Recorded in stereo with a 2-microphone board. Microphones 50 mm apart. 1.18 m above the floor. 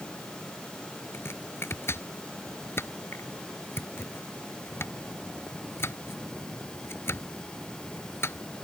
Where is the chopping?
55° left (ahead or behind).